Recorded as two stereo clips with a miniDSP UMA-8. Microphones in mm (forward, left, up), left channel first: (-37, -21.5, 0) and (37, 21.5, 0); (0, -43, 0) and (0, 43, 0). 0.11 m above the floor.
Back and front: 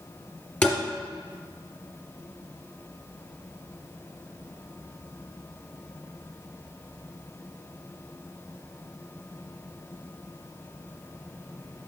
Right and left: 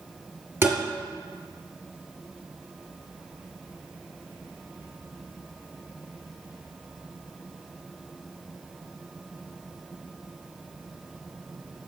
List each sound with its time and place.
0.6 s tapping: 140° left, 2.5 m